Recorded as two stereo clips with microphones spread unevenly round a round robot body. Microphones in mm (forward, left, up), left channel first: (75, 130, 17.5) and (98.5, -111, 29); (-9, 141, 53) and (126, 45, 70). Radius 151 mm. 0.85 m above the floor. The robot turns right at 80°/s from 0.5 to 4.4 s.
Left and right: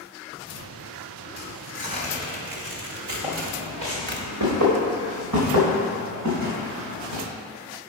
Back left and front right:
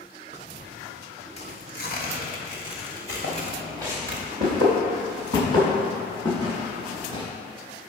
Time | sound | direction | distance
1.4 | tearing paper | 100° left | 1.6 m
3.2 | footsteps | 175° right | 3.5 m